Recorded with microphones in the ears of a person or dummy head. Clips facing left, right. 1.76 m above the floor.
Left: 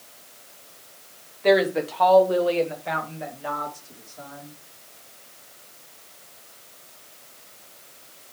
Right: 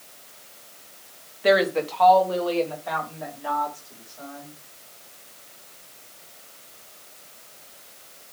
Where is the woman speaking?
5° right (ahead or behind), 0.9 m; by 4.5 s 45° left (ahead or behind), 3 m.